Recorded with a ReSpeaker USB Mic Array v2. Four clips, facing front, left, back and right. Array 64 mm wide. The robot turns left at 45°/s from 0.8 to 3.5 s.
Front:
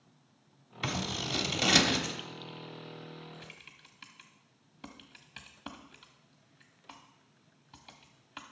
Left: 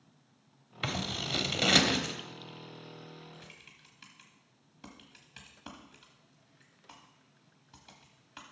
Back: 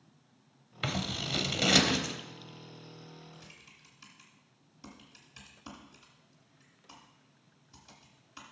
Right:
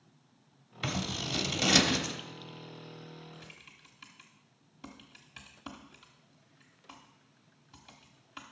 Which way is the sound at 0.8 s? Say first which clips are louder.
Even, even; 140° left.